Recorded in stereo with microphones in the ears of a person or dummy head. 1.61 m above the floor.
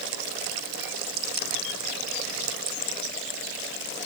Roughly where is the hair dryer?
No hair dryer in this recording.